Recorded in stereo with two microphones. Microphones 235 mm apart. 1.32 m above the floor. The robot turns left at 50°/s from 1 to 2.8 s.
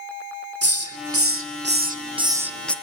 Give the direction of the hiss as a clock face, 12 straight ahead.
3 o'clock.